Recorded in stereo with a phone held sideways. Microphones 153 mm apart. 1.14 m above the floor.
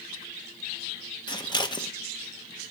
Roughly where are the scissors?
Left.